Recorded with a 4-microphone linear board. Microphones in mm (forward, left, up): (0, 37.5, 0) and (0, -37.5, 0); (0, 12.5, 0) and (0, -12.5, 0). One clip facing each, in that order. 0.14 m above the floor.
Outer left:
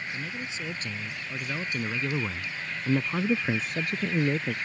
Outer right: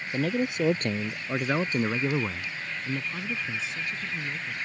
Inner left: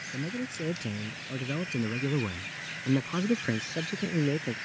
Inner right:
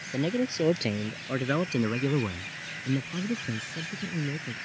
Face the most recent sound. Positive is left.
turn(degrees=65)  # may be behind; listen again after turning